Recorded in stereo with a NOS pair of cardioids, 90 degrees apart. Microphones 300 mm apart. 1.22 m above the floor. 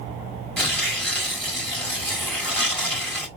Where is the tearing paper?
5° left, 2 m.